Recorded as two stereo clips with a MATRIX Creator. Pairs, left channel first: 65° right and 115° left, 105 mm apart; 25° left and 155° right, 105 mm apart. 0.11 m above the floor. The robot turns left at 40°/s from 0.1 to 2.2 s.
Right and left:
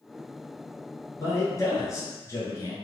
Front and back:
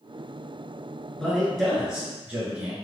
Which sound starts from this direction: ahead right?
A man speaking, at 1.2 s.